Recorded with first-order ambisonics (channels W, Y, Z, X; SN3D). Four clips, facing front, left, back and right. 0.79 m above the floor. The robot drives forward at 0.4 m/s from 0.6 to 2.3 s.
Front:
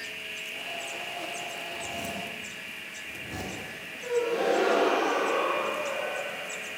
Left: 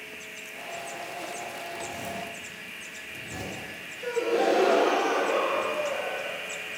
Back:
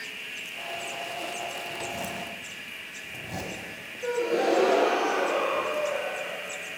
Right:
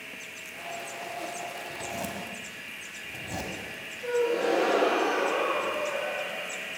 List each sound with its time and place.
1.7 s a zipper: 125° right, 1.6 m; by 3.6 s 130° right, 1.7 m
4.0 s a gasp: 165° left, 4 m